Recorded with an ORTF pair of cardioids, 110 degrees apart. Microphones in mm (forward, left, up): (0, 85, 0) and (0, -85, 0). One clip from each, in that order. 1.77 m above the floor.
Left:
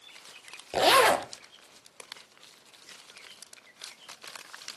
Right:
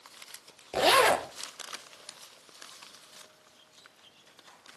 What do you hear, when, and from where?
0.7 s a zipper: 10° left, 1.1 m